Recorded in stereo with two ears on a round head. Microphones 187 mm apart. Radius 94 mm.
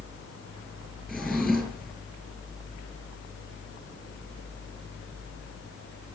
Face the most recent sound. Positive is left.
turn(degrees=5)  # may be behind; listen again after turning